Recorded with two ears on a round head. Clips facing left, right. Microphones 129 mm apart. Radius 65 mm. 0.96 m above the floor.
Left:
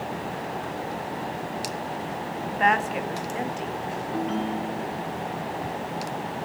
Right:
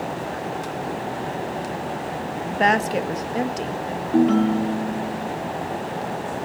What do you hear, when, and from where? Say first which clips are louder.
2.5 s a woman speaking: right 3 dB; 45° right (ahead or behind), 1.8 m
4.1 s a ringtone: right 12 dB; 60° right (ahead or behind), 1.2 m